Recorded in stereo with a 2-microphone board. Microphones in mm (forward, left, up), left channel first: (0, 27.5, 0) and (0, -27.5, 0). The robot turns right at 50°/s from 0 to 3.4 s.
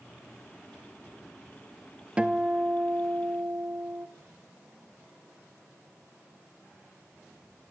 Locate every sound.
2.2 s a guitar: 155° right, 1.4 m; by 4.1 s 90° right, 1.4 m